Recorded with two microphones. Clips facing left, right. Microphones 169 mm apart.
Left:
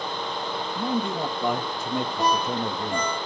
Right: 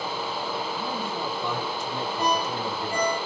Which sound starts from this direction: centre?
A ringtone, at 2.2 s.